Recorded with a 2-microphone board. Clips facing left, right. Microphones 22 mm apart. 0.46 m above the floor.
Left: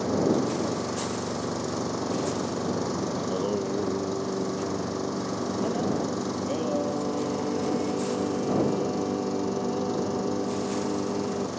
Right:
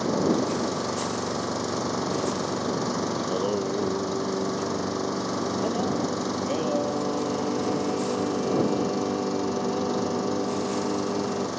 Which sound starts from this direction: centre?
Singing, at 3.2 s.